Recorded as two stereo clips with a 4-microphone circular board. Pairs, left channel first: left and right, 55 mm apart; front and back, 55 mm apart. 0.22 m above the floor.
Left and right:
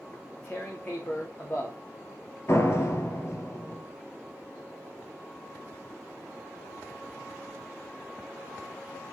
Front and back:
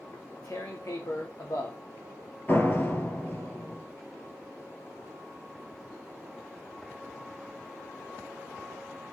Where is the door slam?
55° left, 3 m.